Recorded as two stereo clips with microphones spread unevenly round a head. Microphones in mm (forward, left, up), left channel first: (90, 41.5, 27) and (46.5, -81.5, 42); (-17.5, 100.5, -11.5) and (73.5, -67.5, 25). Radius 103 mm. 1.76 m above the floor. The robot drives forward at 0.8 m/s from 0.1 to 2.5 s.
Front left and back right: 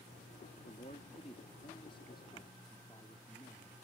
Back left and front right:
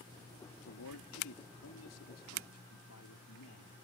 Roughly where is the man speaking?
Behind left.